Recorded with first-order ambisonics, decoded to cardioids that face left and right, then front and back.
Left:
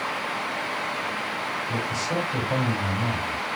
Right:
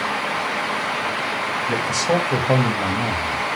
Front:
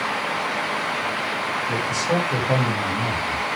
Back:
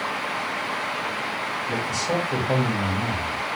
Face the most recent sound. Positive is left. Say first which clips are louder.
# right 7 dB, front 2 dB
turn(degrees=-90)